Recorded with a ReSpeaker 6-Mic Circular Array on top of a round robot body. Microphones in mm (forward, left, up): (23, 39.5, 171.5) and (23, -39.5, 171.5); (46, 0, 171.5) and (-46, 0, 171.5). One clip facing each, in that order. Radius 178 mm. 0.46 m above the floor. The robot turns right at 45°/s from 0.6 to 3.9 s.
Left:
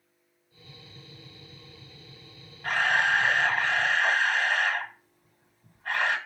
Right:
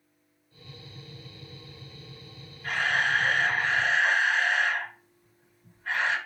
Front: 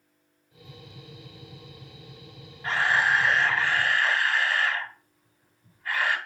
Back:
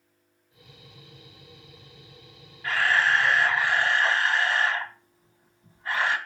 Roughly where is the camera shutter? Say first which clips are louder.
Left 2 dB, back 1 dB; ahead left.